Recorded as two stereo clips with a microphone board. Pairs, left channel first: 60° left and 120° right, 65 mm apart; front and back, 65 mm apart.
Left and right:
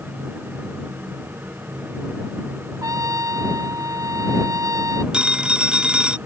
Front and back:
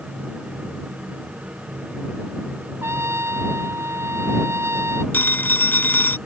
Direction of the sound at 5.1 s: 50° right.